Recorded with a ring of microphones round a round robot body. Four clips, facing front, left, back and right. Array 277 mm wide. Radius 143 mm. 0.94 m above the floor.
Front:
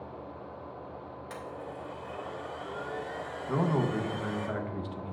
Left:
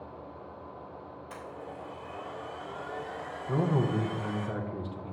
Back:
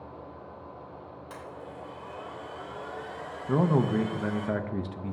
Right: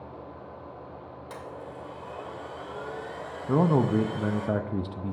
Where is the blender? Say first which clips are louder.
Right 2 dB, front 2 dB; 65° right, 3 m.